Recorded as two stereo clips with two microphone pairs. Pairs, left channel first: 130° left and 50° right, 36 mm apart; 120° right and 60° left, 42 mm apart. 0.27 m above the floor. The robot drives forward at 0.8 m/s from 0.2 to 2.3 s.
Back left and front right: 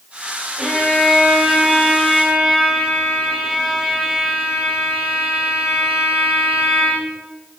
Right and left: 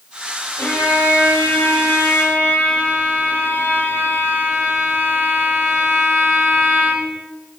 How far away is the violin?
About 8.5 m.